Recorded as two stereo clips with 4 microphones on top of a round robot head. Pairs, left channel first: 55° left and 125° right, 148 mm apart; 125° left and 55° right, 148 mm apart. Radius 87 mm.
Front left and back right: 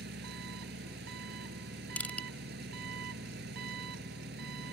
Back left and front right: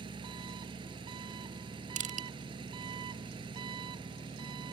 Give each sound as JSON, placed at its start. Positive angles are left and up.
{"t": 0.0, "sound": "an engine running", "azimuth_deg": -115}
{"t": 2.0, "sound": "crushing", "azimuth_deg": -25}